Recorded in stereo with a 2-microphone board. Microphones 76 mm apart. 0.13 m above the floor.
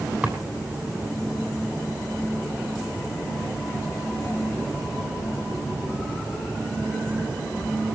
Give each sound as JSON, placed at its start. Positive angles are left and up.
{"t": 0.2, "sound": "a drawer", "side_deg": -15, "distance_m": 3.0}